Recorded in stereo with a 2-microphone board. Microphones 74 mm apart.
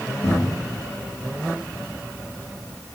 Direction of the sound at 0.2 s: 70° left (ahead or behind).